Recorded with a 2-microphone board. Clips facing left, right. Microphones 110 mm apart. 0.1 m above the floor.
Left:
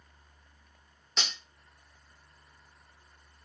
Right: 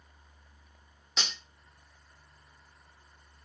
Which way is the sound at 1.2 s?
5° right (ahead or behind).